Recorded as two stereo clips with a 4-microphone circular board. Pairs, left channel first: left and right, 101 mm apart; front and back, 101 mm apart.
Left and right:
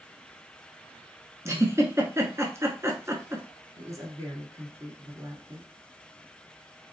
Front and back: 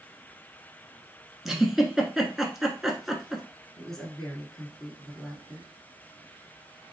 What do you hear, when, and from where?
1.4 s a giggle: 95° right, 1.2 m
3.8 s a woman speaking: 80° right, 1.8 m